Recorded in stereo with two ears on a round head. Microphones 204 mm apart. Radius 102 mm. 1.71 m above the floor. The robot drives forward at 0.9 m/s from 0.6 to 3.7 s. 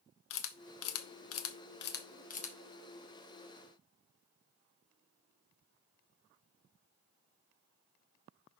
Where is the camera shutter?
60° left (ahead or behind), 1.0 m; by 2.6 s 30° left (ahead or behind), 1.6 m.